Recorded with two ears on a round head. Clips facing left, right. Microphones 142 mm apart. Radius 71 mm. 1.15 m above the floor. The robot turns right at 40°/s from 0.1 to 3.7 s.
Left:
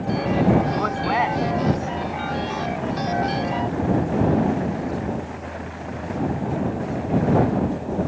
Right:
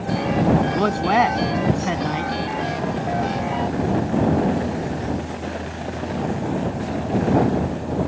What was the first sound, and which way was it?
A man speaking, 145° right.